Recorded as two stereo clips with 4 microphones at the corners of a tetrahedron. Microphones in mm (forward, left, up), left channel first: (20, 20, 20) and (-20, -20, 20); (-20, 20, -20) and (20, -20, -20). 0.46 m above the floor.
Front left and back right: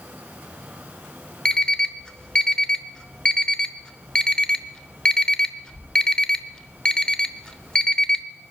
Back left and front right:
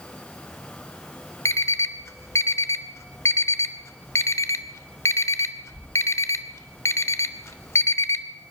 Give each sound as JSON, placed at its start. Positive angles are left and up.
{"t": 1.4, "sound": "an alarm clock", "azimuth_deg": 120, "distance_m": 0.7}